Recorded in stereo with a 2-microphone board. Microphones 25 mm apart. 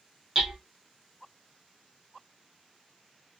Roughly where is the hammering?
Centre.